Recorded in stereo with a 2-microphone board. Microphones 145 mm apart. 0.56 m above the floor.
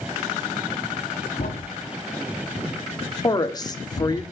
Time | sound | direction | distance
1.4 | a thud | 75° left (ahead or behind) | 1.3 m
3.2 | a woman speaking | 25° left (ahead or behind) | 1.2 m